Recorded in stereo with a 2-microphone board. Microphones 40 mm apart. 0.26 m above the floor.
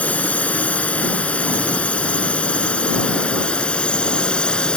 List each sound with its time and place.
0.0 s a drone: 40° left (ahead or behind); by 4.8 s 25° left (ahead or behind)